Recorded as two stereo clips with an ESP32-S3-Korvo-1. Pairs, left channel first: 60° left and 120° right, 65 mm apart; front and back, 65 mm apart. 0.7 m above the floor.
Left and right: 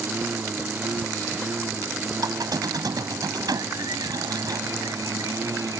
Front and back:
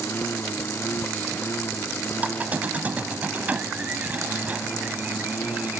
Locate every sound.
0.0 s a lawn mower: 55° right
2.2 s a squeak: 115° right